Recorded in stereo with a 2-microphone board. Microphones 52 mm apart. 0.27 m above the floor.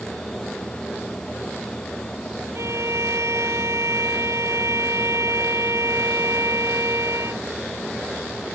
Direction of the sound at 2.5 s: 65° right (ahead or behind).